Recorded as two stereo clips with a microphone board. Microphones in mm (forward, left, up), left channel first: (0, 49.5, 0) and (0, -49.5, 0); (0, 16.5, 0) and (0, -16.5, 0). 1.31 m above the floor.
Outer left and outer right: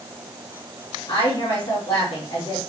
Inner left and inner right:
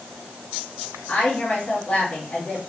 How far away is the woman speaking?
About 2 m.